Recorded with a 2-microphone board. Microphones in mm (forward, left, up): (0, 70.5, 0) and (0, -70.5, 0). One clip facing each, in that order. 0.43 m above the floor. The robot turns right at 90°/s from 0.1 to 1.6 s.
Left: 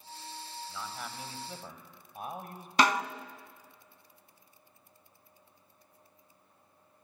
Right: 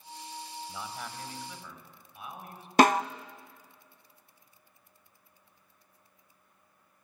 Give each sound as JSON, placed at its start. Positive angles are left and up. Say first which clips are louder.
{"t": 0.7, "sound": "a man speaking", "louder": "even", "azimuth_deg": -30, "distance_m": 2.5}
{"t": 2.8, "sound": "a snare drum", "louder": "right 5 dB", "side_deg": -45, "distance_m": 0.5}